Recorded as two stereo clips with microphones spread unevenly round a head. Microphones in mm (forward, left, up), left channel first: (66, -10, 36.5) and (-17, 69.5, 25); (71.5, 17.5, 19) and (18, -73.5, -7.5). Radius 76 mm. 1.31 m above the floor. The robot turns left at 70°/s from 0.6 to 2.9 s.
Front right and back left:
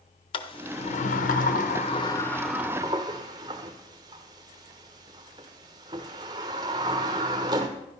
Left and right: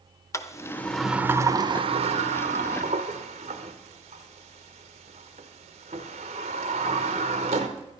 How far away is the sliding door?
About 1.0 m.